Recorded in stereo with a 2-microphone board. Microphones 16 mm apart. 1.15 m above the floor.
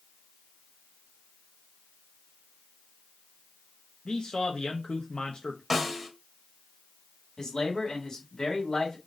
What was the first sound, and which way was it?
A man speaking, 80° left.